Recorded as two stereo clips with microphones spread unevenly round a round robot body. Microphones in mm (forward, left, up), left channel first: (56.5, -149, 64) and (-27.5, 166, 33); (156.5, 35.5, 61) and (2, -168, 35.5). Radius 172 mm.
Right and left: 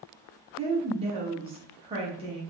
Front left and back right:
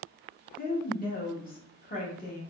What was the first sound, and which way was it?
A woman speaking, 65° left.